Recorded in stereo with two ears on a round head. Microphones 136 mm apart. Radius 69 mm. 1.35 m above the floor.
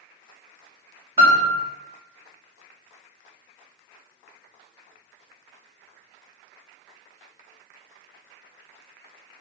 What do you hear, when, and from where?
1.2 s a piano: 30° right (ahead or behind), 2.0 m